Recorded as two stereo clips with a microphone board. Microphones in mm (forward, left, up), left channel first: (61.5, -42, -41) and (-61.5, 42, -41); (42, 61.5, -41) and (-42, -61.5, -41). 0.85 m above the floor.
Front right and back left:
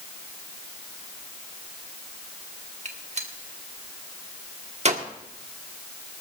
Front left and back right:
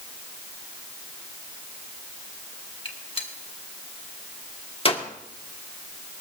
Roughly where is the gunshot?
Left.